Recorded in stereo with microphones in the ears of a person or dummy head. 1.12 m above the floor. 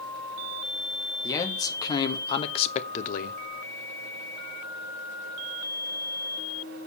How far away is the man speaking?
About 1.6 m.